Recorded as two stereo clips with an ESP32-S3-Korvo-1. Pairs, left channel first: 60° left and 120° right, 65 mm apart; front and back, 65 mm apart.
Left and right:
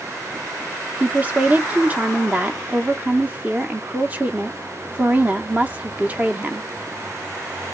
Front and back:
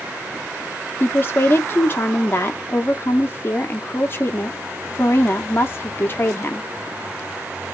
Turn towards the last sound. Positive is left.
turn(degrees=-55)